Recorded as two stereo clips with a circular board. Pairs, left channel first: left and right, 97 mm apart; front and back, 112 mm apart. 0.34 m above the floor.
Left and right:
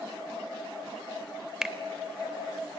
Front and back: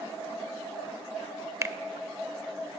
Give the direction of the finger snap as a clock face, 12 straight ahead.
6 o'clock.